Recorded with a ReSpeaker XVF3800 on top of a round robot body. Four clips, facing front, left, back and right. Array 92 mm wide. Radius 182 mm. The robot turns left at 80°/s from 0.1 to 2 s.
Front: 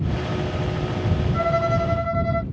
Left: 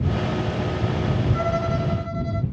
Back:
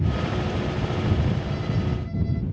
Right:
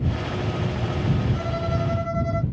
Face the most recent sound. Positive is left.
turn(degrees=-20)